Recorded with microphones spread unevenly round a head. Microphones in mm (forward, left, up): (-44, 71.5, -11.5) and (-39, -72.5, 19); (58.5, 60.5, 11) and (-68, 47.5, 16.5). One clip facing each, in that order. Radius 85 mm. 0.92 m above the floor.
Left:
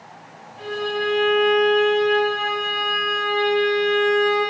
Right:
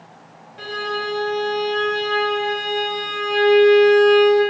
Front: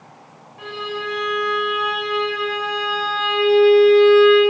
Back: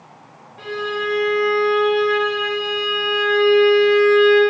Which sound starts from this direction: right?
A violin, at 0.6 s.